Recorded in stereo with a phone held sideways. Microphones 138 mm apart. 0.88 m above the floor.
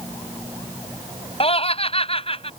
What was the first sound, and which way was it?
Laughter, 45° left (ahead or behind).